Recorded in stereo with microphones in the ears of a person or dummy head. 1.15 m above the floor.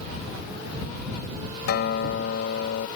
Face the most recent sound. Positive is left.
turn(degrees=60)  # may be behind; listen again after turning